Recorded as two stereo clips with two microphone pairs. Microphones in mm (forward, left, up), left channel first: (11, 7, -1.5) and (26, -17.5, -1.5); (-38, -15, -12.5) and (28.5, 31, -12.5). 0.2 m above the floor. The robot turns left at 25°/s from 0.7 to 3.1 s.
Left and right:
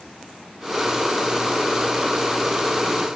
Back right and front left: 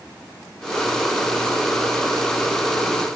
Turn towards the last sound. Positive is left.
No sound to turn to.